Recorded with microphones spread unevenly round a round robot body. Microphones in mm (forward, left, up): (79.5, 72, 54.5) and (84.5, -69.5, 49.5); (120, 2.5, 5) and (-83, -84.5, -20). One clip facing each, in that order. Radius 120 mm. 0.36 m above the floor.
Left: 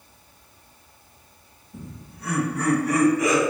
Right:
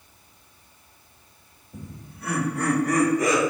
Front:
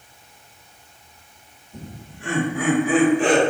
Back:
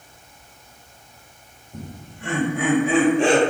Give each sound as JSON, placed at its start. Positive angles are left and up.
{"t": 1.7, "sound": "laughter", "azimuth_deg": -90, "distance_m": 1.8}